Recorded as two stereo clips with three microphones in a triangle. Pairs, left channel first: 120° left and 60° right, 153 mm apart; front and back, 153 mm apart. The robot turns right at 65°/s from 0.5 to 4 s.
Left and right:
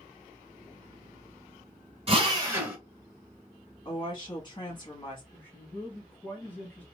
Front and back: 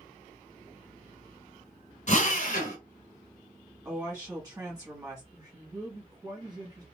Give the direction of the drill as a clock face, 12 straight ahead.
1 o'clock.